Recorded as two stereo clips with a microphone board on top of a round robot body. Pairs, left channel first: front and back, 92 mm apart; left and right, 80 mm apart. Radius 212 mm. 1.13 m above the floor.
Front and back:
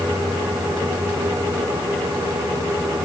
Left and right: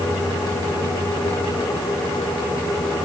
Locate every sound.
Only background noise.